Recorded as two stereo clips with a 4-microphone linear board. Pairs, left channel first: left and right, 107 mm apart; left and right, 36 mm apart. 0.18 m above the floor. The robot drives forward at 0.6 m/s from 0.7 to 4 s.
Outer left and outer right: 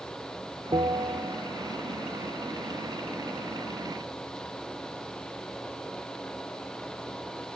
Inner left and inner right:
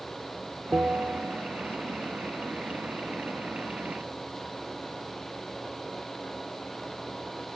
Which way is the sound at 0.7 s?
45° right (ahead or behind).